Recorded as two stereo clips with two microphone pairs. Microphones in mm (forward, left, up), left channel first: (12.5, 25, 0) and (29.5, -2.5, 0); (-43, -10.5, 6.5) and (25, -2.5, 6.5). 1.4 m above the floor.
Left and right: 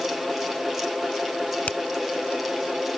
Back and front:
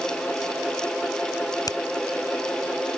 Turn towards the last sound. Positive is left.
turn(degrees=165)